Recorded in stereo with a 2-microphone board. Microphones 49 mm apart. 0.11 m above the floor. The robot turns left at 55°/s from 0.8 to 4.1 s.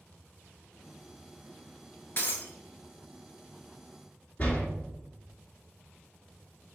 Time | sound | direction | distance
2.2 | breaking glass | 40° left (ahead or behind) | 1.1 m
4.4 | a door slam | 30° left (ahead or behind) | 1.3 m